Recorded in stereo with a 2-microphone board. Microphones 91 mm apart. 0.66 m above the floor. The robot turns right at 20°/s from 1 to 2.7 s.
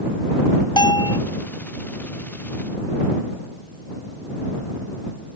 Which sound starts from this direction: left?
A bell, at 0.8 s.